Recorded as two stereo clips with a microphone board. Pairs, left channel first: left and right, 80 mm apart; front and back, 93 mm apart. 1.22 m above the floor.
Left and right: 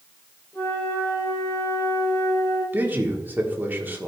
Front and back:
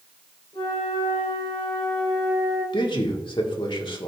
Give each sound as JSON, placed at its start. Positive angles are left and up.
{"t": 0.5, "sound": "a flute", "azimuth_deg": 30, "distance_m": 4.0}
{"t": 2.7, "sound": "a man speaking", "azimuth_deg": -25, "distance_m": 1.4}